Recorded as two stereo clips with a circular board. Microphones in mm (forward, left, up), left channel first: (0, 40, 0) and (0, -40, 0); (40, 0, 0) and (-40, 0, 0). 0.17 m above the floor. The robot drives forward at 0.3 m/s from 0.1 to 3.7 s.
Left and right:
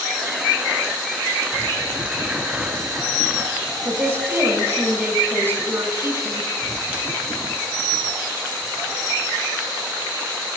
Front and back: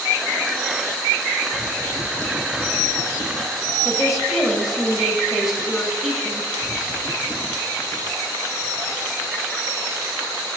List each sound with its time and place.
3.9 s a woman speaking: 95° right, 1.2 m